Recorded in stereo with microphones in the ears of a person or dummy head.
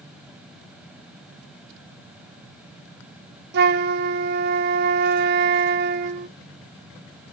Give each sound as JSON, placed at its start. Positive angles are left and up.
{"t": 3.5, "sound": "a flute", "side_deg": -65, "distance_m": 0.8}